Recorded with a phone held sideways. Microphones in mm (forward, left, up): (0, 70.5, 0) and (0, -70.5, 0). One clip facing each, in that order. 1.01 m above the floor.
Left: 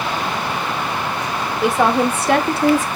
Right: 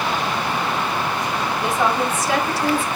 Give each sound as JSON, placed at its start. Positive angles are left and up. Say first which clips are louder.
{"t": 1.6, "sound": "a woman speaking", "louder": "left 6 dB", "side_deg": 65, "distance_m": 2.0}